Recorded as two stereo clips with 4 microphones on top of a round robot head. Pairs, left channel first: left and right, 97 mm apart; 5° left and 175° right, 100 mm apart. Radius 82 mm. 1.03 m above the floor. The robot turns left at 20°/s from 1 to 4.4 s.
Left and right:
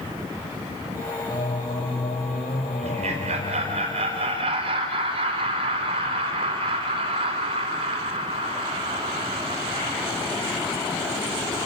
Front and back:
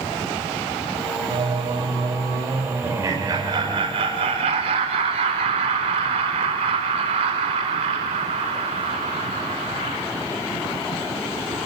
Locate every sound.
1.3 s singing: 150° left, 2 m; by 3.8 s 100° left, 2 m
2.8 s laughter: 100° right, 4 m; by 10.0 s 135° right, 4 m